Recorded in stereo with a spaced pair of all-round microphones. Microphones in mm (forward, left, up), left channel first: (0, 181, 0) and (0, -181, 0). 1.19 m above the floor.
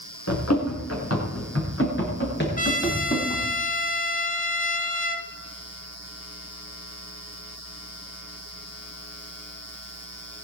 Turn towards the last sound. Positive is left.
turn(degrees=20)  # may be behind; listen again after turning